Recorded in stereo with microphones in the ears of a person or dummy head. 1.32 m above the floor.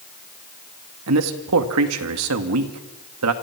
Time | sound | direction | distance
1.1 | a man speaking | 90° right | 2 m